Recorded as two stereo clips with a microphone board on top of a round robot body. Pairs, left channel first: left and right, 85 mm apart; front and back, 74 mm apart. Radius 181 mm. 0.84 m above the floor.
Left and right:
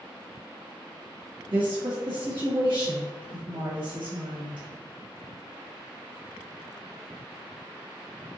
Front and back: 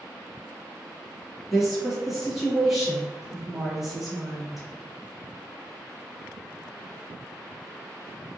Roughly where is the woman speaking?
Right.